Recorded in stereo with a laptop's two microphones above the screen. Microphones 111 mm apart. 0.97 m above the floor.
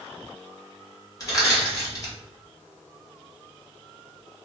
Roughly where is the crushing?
Left.